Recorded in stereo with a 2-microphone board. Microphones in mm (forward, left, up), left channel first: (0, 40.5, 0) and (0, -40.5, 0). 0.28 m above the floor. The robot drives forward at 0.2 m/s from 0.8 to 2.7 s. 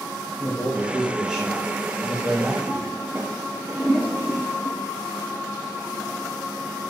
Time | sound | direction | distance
0.4 | a man speaking | 15° right (ahead or behind) | 1.2 m
2.7 | a toilet flushing | 20° right (ahead or behind) | 1.4 m